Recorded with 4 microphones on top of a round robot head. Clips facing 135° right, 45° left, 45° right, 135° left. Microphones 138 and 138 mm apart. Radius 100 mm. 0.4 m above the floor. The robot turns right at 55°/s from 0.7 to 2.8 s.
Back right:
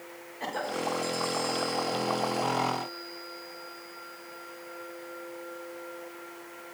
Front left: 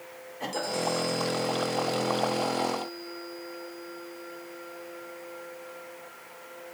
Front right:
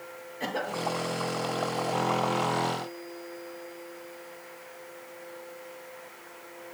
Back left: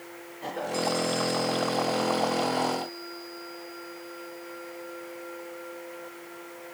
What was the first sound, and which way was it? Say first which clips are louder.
A cough: front left 1 dB, back left 1 dB; 35° right.